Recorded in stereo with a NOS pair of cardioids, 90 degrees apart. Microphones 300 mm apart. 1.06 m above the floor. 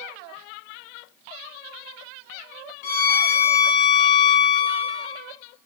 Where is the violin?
70° left, 1.1 m.